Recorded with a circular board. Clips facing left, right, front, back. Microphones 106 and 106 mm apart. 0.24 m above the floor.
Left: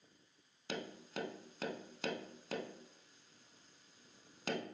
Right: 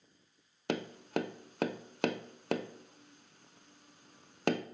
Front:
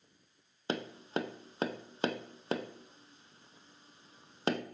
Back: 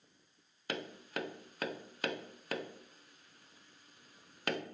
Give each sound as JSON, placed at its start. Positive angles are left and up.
{"t": 0.7, "sound": "tapping", "azimuth_deg": -65, "distance_m": 0.5}